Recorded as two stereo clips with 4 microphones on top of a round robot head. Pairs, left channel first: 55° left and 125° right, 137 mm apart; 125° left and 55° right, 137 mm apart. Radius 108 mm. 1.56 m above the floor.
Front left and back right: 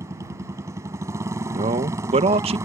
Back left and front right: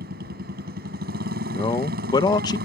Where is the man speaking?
175° right.